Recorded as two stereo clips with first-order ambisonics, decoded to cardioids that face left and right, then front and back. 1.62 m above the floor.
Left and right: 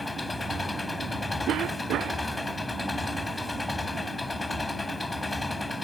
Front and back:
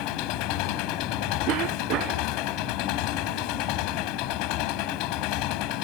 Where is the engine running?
10° left.